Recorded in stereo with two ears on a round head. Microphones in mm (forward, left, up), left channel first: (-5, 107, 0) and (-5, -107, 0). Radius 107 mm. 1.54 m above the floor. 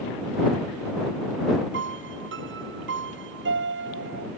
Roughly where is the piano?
Right.